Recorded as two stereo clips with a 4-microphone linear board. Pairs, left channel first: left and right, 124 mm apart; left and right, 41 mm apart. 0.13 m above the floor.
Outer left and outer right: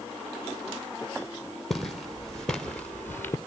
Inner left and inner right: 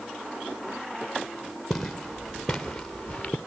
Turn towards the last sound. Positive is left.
turn(degrees=25)  # may be behind; listen again after turning